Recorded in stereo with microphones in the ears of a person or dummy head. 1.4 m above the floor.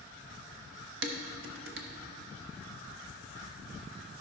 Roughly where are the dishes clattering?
Right.